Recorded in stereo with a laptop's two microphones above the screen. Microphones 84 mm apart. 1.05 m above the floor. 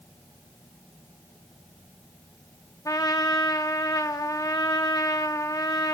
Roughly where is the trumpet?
Left.